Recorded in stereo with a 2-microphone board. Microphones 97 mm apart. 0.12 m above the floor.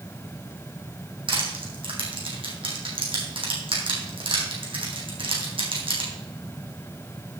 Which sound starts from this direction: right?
Crushing, at 1.3 s.